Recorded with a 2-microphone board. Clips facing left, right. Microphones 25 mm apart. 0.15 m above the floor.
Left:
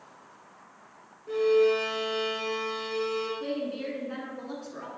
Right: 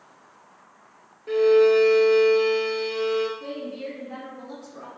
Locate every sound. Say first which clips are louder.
1.3 s a violin: right 6 dB; 60° right (ahead or behind), 0.6 m
3.4 s a woman speaking: left 1 dB; 35° left (ahead or behind), 1.5 m